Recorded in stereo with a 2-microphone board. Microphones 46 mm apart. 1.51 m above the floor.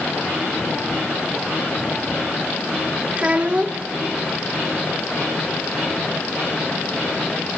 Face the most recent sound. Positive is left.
turn(degrees=-30)  # may be behind; listen again after turning